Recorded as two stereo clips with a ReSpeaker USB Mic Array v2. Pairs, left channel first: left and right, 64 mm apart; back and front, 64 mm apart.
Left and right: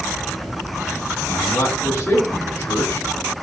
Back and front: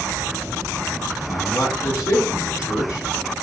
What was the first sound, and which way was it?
A man speaking, 145° left.